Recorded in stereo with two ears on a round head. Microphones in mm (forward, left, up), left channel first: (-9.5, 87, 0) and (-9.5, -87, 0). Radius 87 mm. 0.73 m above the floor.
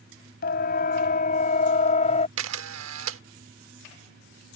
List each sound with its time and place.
0.4 s a siren: 55° left (ahead or behind); by 2.3 s 35° left (ahead or behind)
2.4 s a camera shutter: 80° right